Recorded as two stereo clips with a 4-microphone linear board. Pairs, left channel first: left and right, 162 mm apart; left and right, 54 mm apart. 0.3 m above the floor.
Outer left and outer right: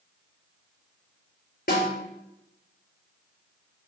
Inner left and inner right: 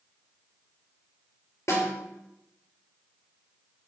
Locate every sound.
1.7 s a snare drum: 60° left (ahead or behind), 3 m